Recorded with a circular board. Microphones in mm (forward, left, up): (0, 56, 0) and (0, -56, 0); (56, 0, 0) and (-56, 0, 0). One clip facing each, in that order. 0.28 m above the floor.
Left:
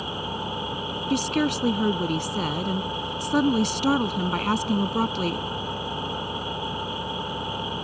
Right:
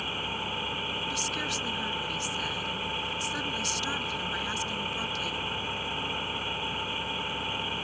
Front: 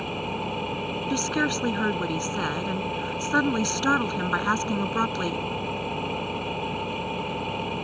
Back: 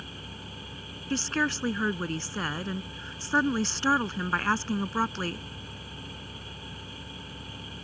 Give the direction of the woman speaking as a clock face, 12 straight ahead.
9 o'clock.